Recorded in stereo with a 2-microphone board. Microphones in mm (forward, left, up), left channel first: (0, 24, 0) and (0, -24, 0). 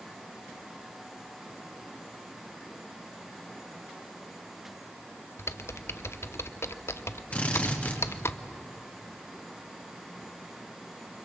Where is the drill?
30° left (ahead or behind), 3 m.